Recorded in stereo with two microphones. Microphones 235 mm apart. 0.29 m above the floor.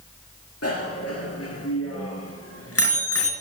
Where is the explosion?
No explosion in this recording.